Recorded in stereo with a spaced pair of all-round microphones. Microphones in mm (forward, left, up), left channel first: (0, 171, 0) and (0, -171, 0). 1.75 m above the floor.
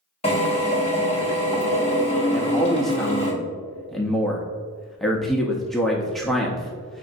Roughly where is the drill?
Centre.